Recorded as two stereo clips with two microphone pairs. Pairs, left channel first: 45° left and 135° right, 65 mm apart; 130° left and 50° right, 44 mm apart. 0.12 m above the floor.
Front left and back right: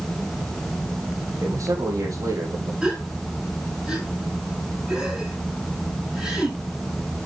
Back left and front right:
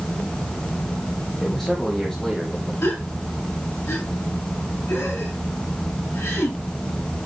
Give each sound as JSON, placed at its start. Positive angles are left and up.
{"t": 1.4, "sound": "a man speaking", "azimuth_deg": -140, "distance_m": 4.0}
{"t": 2.8, "sound": "a gasp", "azimuth_deg": 145, "distance_m": 8.0}